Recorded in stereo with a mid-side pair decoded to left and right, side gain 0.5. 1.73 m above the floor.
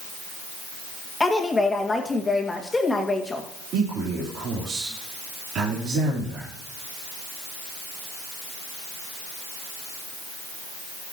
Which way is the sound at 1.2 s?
20° left.